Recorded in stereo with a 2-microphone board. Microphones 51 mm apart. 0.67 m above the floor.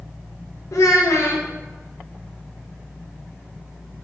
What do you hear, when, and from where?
0.7 s a child speaking: 75° left (ahead or behind), 0.6 m